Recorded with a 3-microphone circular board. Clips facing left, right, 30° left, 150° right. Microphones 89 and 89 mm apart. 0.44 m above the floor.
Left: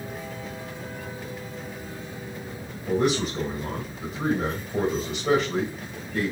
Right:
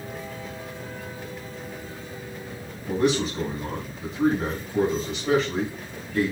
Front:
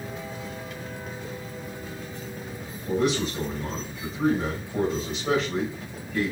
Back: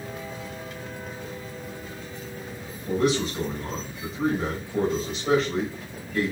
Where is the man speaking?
120° left, 2.5 m.